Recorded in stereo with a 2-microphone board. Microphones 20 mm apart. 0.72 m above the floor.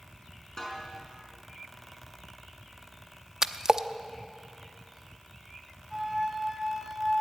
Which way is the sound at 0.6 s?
30° left (ahead or behind).